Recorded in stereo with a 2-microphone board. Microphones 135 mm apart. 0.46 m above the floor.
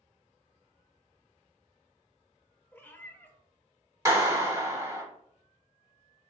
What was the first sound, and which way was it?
A cat meowing, 15° left (ahead or behind).